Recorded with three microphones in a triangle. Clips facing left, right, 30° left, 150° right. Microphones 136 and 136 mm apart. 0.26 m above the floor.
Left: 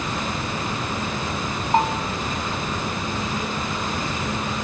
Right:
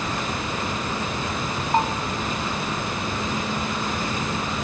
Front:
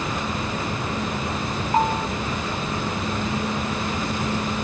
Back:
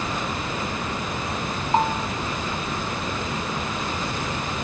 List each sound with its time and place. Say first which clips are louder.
1.7 s a bell: left 2 dB, front 1 dB; 155° left, 1.4 m